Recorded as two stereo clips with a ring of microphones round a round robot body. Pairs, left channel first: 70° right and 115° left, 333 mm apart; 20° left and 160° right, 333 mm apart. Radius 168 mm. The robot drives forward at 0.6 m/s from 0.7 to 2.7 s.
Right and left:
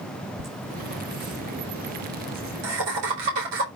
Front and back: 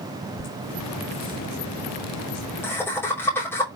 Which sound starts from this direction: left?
Laughter, at 0.4 s.